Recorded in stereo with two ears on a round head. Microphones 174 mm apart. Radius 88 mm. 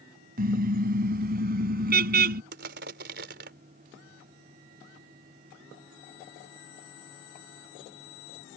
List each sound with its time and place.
0.4 s a car horn: 50° right (ahead or behind)
2.5 s crushing: 60° right (ahead or behind)